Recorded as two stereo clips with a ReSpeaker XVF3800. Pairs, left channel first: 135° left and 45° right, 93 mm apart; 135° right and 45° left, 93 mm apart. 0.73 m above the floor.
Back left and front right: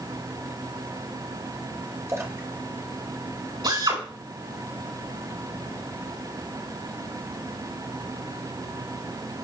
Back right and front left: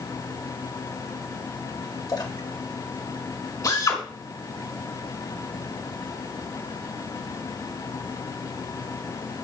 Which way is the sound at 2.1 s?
95° right.